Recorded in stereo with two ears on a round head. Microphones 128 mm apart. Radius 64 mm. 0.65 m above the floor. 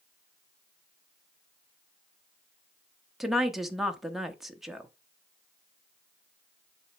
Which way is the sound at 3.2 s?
Centre (ahead or behind).